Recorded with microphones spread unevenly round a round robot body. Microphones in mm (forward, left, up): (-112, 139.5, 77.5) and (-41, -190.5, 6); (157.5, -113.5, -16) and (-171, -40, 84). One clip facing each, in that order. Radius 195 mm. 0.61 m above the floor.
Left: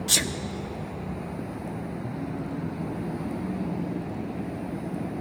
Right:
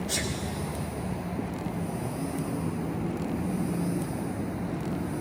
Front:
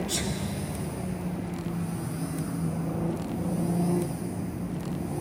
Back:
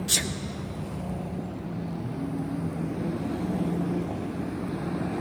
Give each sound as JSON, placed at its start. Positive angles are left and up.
{"t": 0.1, "sound": "a sneeze", "azimuth_deg": 115, "distance_m": 1.5}